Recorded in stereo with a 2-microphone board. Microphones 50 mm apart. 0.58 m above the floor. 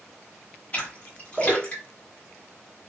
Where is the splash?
25° left (ahead or behind), 1.6 m.